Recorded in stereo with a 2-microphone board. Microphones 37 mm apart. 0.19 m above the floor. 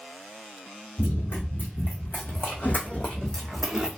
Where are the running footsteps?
85° left, 1.8 m; by 3.9 s 15° right (ahead or behind), 0.8 m.